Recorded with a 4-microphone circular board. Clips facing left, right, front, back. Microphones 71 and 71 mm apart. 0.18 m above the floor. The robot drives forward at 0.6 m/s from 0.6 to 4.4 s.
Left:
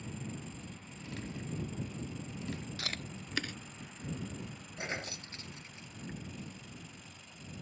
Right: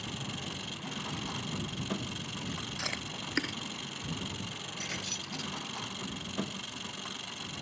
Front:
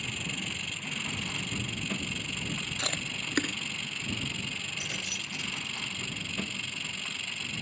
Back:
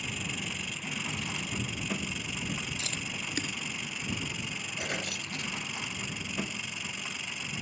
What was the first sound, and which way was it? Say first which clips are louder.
An engine running: right 3 dB, even; 95° right.